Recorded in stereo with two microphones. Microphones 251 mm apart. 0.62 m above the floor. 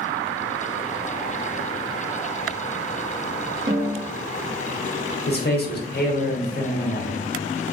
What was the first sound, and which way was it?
A snare drum, 45° right (ahead or behind).